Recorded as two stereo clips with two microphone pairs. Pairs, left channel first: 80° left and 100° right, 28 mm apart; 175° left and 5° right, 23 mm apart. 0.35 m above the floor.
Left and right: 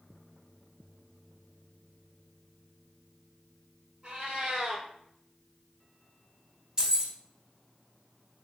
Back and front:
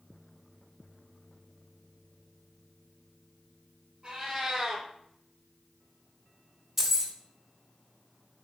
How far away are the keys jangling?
About 0.5 m.